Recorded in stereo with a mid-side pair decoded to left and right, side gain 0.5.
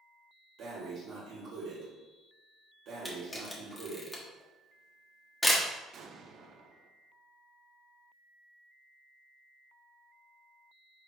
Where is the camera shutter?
10° left, 1.3 m.